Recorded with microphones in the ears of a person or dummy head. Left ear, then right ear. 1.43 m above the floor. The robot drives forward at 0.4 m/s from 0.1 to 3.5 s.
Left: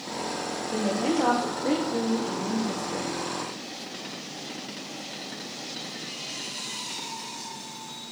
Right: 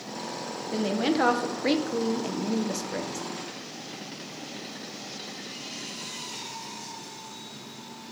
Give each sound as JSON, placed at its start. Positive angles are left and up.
{"t": 0.7, "sound": "a woman speaking", "side_deg": -50, "distance_m": 1.1}